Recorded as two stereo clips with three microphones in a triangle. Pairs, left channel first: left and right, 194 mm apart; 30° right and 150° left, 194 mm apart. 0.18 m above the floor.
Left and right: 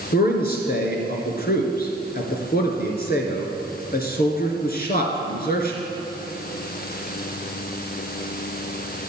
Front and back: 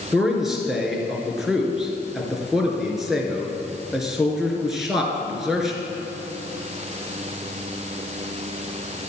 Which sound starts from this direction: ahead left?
A man speaking, at 0.1 s.